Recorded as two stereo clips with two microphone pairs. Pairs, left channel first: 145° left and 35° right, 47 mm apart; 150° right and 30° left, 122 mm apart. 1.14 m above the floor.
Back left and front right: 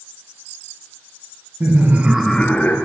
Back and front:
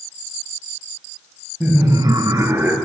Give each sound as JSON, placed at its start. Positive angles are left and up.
{"t": 1.6, "sound": "laughter", "azimuth_deg": -40, "distance_m": 0.8}